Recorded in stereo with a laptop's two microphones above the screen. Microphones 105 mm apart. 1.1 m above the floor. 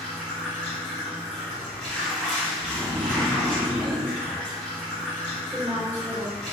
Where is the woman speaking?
25° right (ahead or behind), 1.6 m.